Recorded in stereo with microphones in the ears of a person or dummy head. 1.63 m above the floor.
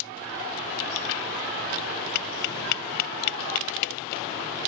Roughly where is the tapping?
Left.